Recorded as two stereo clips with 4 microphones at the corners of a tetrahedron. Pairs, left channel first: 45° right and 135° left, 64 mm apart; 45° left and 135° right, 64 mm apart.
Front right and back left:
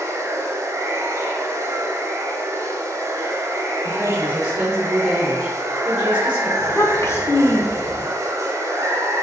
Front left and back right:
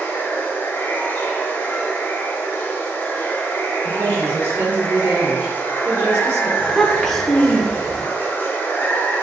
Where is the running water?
105° left, 0.8 m.